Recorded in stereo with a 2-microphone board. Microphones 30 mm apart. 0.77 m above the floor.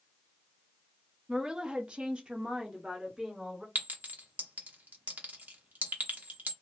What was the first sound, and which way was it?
A woman speaking, 25° right (ahead or behind).